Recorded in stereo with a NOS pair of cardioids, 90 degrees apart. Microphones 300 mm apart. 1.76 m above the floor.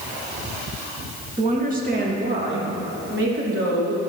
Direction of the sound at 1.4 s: 25° right.